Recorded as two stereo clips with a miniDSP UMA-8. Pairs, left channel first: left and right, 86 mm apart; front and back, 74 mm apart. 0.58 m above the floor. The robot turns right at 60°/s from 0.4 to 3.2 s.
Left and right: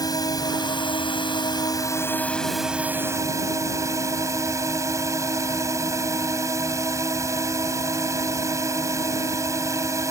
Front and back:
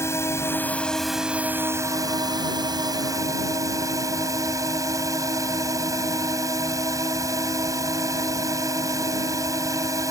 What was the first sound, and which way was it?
A drone, 50° left.